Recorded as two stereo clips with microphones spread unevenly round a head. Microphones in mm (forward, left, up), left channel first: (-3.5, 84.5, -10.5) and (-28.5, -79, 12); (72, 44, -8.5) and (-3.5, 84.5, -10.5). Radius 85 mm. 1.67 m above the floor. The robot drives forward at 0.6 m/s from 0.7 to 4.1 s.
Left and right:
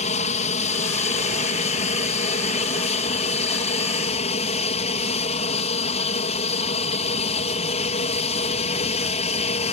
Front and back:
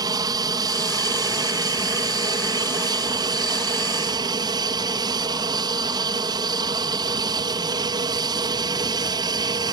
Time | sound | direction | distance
0.0 | an aircraft | 125° left | ?